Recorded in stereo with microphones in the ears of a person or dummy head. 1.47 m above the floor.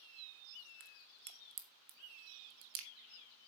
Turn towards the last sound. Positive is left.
turn(degrees=-50)  # may be behind; listen again after turning